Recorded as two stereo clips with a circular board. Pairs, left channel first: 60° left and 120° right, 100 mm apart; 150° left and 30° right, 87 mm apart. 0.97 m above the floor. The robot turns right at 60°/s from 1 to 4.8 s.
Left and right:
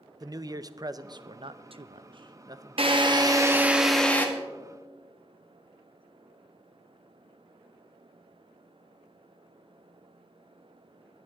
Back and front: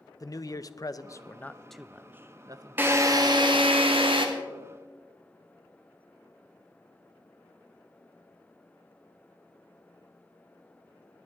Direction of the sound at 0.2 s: 165° right.